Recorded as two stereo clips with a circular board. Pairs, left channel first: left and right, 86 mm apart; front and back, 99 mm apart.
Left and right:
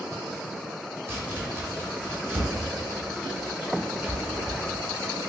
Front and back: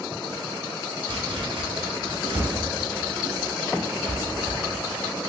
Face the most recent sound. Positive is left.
turn(degrees=-150)